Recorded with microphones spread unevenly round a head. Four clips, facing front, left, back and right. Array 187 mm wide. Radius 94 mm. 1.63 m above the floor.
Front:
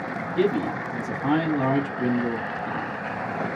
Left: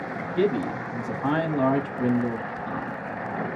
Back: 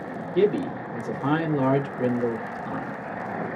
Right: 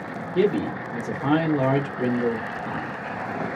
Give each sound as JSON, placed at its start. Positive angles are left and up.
{"t": 0.3, "sound": "a man speaking", "azimuth_deg": -135, "distance_m": 1.8}